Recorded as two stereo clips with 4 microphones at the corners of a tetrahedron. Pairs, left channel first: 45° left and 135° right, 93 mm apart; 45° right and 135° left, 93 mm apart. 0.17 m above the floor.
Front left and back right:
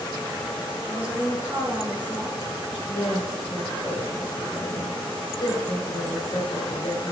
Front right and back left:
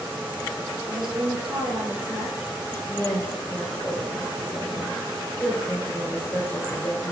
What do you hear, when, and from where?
0.9 s a woman speaking: 150° left, 2.5 m
2.9 s a woman speaking: 20° left, 3 m